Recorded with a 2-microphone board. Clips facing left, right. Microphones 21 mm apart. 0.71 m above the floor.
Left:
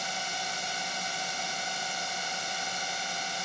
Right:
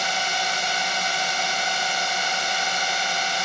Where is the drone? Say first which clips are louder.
Right 10 dB; 45° right (ahead or behind).